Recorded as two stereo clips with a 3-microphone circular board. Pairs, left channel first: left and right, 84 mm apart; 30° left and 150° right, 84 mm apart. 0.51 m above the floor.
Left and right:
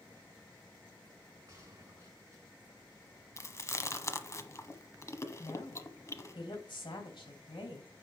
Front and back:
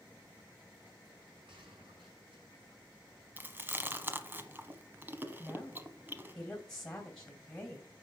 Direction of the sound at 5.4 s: 105° left.